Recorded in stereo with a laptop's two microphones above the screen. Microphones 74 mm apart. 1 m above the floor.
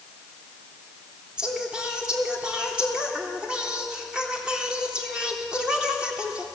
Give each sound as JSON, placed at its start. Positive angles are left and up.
{"t": 1.4, "sound": "singing", "side_deg": -10, "distance_m": 3.5}